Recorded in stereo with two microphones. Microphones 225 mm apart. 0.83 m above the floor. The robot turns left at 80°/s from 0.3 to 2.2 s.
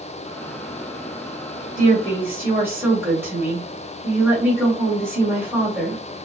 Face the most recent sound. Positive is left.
turn(degrees=-170)